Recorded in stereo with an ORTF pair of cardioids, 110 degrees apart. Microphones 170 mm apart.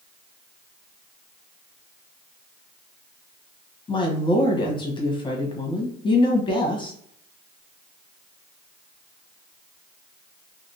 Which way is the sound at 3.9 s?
30° left.